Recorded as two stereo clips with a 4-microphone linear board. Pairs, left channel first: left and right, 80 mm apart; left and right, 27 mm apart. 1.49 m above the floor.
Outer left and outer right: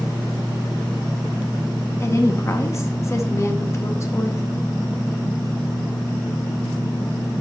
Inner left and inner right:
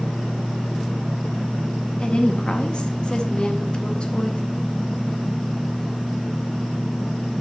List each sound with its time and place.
2.0 s a woman speaking: 35° left (ahead or behind), 0.6 m